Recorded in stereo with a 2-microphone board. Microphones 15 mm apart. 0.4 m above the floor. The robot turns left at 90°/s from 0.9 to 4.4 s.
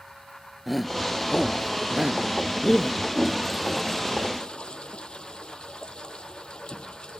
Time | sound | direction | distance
0.7 | a shout | centre (ahead or behind) | ?
3.1 | a toilet flushing | 140° right | ?